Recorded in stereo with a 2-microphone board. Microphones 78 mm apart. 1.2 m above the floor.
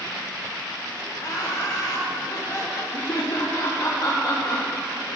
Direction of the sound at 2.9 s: 65° left (ahead or behind).